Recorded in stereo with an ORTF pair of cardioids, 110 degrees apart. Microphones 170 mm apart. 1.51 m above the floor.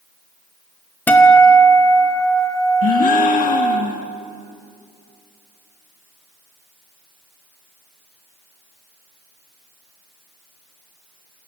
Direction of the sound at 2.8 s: 55° left.